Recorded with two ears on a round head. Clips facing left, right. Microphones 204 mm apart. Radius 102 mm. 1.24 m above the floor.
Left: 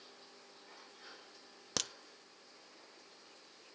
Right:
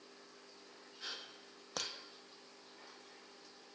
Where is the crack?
35° left (ahead or behind), 0.7 m.